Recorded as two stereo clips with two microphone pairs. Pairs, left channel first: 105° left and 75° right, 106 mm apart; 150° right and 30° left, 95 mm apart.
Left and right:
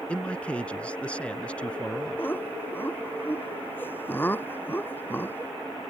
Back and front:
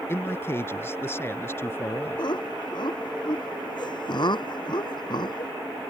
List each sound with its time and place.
0.1 s a man speaking: 175° left
2.2 s laughter: 175° left